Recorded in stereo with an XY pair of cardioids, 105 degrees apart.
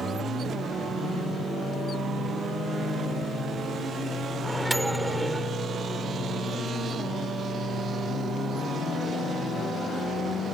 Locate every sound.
4.4 s a microwave: 10° right